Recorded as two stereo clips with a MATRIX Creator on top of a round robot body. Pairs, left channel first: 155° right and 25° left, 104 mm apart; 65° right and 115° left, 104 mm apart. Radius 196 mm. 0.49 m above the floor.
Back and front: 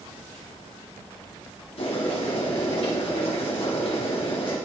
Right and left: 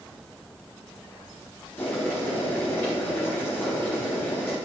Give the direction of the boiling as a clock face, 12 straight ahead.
5 o'clock.